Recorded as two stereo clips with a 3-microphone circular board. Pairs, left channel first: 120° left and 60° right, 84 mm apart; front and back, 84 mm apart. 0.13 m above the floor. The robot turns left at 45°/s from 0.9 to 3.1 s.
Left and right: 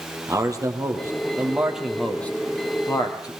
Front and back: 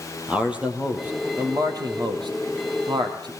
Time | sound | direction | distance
0.3 | a man speaking | 105° right | 3 m